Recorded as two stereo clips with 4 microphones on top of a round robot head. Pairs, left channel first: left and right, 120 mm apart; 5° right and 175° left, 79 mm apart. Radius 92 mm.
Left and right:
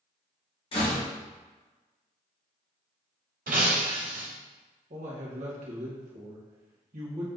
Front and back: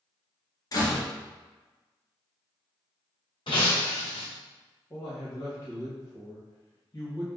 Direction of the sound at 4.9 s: 65° right.